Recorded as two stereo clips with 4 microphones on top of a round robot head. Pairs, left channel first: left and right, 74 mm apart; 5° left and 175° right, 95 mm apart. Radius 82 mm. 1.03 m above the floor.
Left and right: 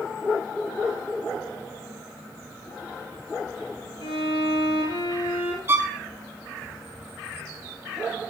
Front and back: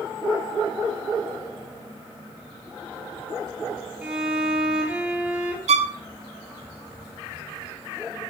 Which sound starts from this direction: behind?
A violin, at 5.7 s.